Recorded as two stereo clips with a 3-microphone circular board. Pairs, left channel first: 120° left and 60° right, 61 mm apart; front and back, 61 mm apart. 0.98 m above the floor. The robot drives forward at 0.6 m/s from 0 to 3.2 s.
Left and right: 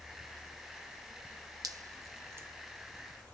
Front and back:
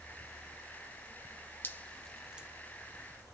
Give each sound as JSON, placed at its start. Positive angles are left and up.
{"t": 1.6, "sound": "dripping", "azimuth_deg": -55, "distance_m": 0.6}